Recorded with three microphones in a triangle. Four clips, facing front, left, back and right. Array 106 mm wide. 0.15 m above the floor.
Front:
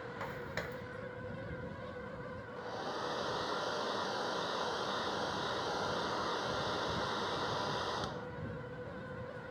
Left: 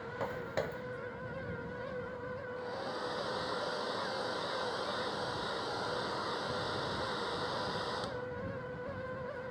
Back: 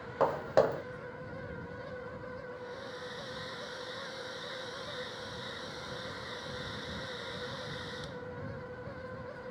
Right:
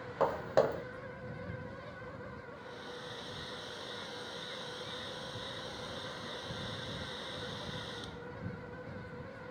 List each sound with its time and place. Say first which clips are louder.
0.2 s footsteps: right 8 dB, back 18 dB; 150° right
2.6 s a hair dryer: left 7 dB, front 3 dB; 35° left